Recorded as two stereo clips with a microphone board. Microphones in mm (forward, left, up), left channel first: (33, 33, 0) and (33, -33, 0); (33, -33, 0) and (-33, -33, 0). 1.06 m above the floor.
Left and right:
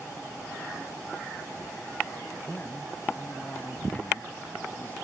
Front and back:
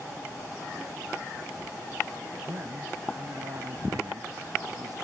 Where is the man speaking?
155° left.